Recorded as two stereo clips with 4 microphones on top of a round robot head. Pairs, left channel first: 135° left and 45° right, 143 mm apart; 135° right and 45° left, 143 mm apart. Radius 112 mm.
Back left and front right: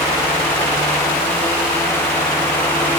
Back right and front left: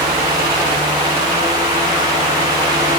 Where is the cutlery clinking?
I don't hear cutlery clinking.